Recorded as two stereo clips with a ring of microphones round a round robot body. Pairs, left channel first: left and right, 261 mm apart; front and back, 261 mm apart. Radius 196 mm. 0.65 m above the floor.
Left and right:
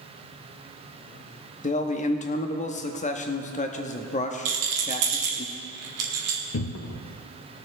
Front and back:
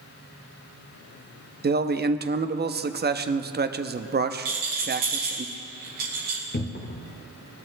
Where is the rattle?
120° right, 1.5 m.